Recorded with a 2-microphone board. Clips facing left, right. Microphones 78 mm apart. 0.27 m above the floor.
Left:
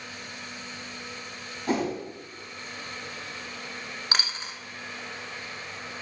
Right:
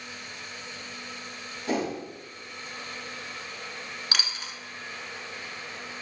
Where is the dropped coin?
30° left (ahead or behind), 0.5 m.